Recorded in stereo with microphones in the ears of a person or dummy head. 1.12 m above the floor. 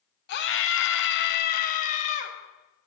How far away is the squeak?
No squeak in this recording.